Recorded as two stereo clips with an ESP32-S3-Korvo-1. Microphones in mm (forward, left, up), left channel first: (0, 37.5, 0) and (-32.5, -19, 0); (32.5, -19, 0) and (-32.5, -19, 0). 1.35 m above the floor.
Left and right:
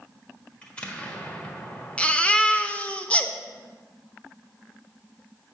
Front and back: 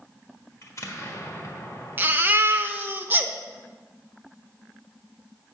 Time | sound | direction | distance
0.6 | an explosion | 5° right | 1.4 m
2.0 | a baby crying | 130° left | 0.6 m